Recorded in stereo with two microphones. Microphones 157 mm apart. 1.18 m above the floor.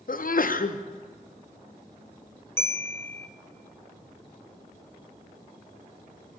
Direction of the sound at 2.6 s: 15° left (ahead or behind).